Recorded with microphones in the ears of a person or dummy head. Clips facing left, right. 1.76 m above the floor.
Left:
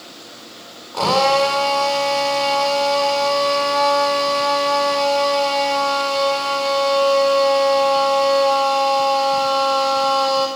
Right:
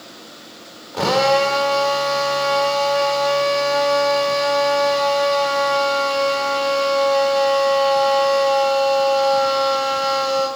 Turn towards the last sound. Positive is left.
turn(degrees=-15)  # may be behind; listen again after turning